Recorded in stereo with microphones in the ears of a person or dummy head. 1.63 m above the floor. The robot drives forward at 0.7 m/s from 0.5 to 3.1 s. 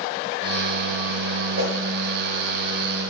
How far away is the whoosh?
About 2 m.